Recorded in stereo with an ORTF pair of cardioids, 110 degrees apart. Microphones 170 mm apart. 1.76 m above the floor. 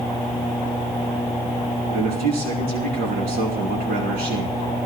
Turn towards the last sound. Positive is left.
turn(degrees=-65)